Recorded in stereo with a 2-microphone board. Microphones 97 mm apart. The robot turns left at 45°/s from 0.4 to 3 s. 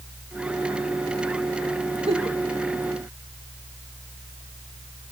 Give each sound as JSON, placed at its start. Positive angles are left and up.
{"t": 2.1, "sound": "a giggle", "side_deg": -80, "distance_m": 1.2}